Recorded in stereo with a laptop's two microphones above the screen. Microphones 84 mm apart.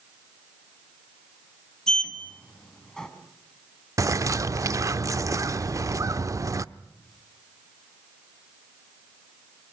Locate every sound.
1.9 s a sliding door: 5° left (ahead or behind), 4 m
4.0 s a bird: 40° right (ahead or behind), 0.7 m